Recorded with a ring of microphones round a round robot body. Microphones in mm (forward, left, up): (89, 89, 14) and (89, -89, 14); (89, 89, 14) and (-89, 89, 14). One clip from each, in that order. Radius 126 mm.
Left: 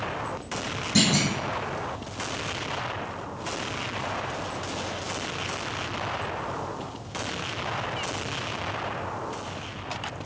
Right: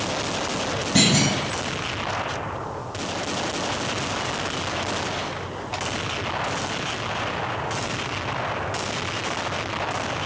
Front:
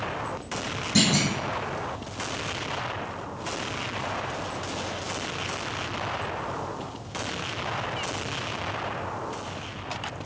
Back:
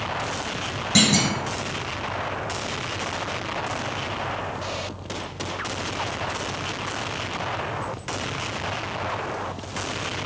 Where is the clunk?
145° left, 1.0 m.